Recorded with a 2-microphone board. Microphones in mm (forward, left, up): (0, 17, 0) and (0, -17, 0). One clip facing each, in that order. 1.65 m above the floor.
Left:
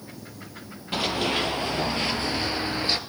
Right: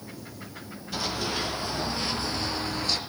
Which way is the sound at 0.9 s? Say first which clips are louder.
Left 5 dB; 50° left (ahead or behind).